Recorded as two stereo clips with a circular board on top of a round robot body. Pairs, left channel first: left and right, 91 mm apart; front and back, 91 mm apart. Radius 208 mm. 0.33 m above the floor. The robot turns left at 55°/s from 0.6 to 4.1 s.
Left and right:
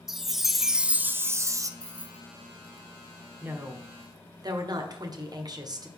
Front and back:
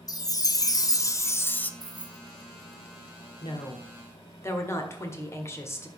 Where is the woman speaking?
20° right, 1.7 m; by 5.9 s 55° right, 1.7 m.